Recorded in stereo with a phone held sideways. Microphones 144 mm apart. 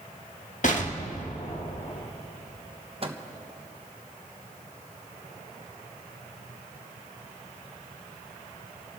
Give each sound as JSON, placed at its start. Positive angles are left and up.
{"t": 0.6, "sound": "an explosion", "side_deg": 60, "distance_m": 1.3}
{"t": 3.0, "sound": "a microwave", "side_deg": -40, "distance_m": 1.0}